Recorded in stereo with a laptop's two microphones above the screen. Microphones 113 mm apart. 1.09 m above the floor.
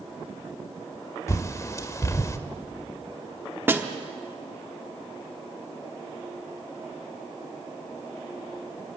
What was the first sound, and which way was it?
A bird, 25° left (ahead or behind).